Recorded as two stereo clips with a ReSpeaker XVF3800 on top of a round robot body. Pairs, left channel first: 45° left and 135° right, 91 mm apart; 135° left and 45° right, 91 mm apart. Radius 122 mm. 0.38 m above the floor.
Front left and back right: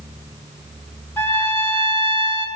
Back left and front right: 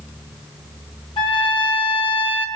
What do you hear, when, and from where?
1.2 s a trumpet: 110° left, 6.5 m